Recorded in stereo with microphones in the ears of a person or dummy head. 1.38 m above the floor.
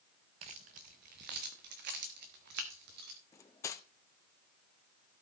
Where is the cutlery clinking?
15° left (ahead or behind), 0.9 m.